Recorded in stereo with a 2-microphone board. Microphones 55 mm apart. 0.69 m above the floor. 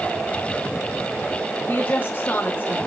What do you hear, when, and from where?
1.7 s a woman speaking: 40° left (ahead or behind), 1.1 m